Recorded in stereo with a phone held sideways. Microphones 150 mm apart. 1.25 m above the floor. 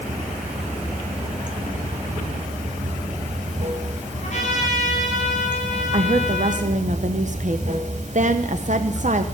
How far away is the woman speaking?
About 0.7 m.